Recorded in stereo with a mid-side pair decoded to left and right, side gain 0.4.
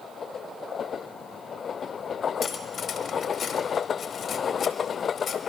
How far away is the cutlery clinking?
About 1.2 m.